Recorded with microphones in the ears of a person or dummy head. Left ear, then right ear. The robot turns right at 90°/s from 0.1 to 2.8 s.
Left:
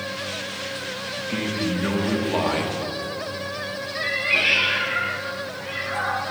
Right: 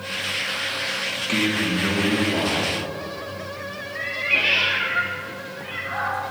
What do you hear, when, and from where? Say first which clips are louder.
1.2 s a man speaking: right 4 dB; 55° right, 2 m; by 2.8 s 90° left, 2 m
4.0 s a cat meowing: even; 5° right (ahead or behind), 1.6 m